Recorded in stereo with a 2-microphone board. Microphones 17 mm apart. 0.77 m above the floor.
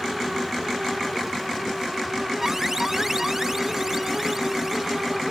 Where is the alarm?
25° right (ahead or behind).